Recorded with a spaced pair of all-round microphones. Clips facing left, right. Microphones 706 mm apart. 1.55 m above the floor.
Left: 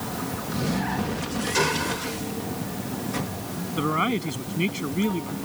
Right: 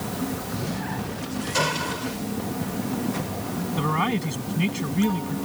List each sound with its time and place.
1.5 s a gunshot: 10° right (ahead or behind)
3.7 s a man speaking: 30° right (ahead or behind)